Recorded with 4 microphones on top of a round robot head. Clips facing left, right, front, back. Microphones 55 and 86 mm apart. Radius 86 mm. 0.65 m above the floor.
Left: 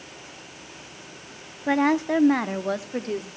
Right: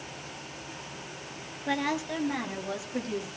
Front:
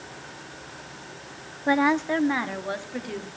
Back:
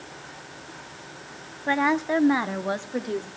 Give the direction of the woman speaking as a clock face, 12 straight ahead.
10 o'clock.